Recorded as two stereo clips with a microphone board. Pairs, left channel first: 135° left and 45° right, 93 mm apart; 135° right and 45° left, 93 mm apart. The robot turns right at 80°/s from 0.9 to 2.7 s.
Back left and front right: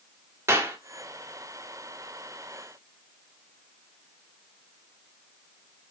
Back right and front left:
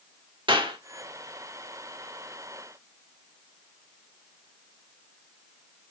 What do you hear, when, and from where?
0.5 s a clap: 15° left, 1.5 m